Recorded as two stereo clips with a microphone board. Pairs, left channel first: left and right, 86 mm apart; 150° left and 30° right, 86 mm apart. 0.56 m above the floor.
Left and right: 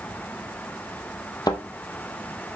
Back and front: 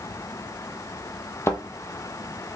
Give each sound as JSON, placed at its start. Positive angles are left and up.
{"t": 1.5, "sound": "a thud", "azimuth_deg": 100, "distance_m": 0.8}